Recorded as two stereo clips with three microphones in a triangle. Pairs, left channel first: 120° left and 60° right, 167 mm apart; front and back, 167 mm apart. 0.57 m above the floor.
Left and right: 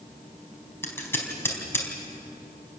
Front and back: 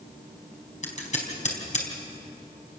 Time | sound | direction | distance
0.8 | scissors | 45° left | 4 m